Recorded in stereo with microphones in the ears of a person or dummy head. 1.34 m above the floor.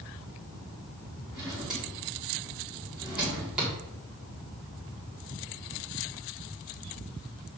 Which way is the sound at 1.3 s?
5° right (ahead or behind).